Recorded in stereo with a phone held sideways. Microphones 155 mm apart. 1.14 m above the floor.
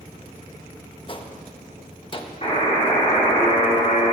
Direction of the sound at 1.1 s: 35° left (ahead or behind).